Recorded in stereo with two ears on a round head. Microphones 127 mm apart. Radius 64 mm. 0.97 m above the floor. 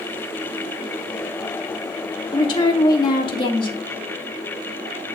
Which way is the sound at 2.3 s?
35° left (ahead or behind).